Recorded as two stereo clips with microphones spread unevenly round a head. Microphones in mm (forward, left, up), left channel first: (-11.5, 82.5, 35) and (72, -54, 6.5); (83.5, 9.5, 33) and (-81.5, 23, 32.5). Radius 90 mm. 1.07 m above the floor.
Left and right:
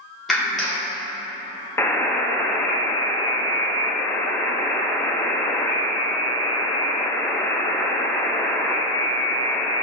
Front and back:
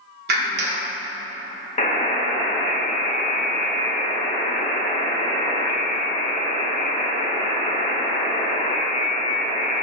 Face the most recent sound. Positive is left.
turn(degrees=45)